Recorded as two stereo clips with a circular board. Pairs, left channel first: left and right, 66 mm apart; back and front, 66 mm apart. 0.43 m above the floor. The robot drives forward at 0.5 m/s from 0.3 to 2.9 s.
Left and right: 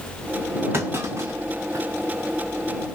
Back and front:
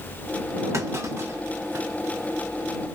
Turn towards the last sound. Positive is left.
turn(degrees=-70)